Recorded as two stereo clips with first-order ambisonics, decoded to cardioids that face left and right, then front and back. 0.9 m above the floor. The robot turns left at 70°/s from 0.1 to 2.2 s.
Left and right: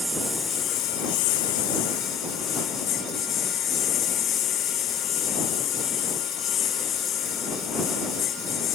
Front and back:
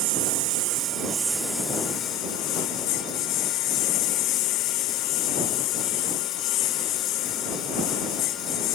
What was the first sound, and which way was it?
A lawn mower, 175° right.